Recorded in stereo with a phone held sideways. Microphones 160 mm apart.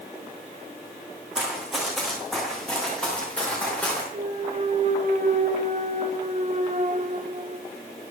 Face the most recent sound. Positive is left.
turn(degrees=-50)  # may be behind; listen again after turning